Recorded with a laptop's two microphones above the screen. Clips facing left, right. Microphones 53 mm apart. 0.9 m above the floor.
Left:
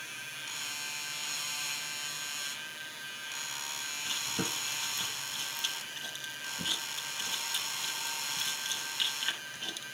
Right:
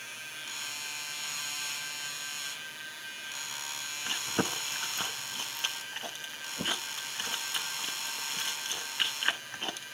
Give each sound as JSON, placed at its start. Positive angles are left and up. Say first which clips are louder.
{"t": 4.0, "sound": "chewing", "louder": "right 5 dB", "side_deg": -40, "distance_m": 0.6}